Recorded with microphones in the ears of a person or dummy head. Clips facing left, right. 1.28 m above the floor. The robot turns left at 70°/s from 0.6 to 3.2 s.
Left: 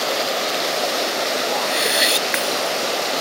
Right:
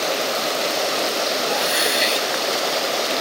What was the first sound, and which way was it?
A whoosh, 155° right.